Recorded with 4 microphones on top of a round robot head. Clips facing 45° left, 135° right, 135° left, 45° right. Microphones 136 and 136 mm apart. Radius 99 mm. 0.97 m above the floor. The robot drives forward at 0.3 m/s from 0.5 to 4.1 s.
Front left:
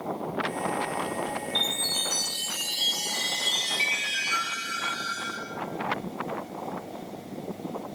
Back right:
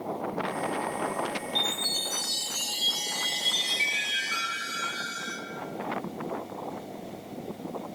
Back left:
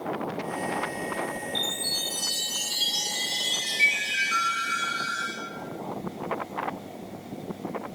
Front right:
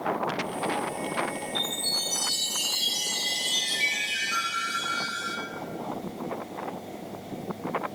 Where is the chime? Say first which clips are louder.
Even, even; 75° left, 1.3 m; by 5.3 s 115° left, 1.4 m.